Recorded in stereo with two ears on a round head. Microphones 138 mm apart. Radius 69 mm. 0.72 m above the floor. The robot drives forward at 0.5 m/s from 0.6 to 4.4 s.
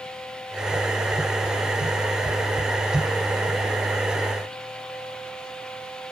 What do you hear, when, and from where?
Only background noise.